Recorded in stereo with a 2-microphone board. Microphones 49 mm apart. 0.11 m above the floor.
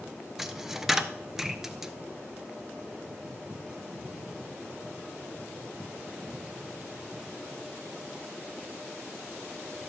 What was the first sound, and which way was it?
A dropped coin, 5° right (ahead or behind).